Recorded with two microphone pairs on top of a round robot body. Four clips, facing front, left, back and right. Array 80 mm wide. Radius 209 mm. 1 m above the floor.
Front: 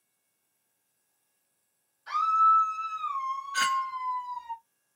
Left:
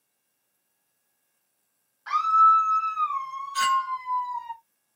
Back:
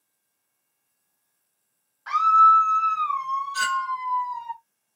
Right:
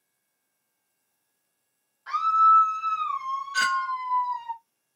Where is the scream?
165° left, 1.4 m; by 4.5 s 130° right, 1.6 m.